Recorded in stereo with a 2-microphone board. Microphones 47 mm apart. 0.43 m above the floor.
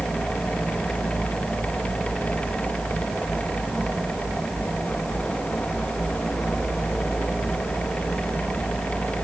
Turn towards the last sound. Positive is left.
No sound to turn to.